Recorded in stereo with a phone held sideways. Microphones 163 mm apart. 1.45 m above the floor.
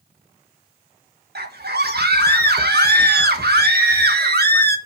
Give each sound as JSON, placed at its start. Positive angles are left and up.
{"t": 1.4, "sound": "a scream", "side_deg": -75, "distance_m": 1.3}